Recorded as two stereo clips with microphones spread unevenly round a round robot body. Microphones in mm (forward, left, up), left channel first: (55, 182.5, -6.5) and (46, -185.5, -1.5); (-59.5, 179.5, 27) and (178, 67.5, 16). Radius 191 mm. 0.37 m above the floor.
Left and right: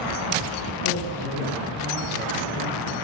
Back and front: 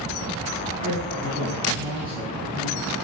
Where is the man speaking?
45° left, 4 m.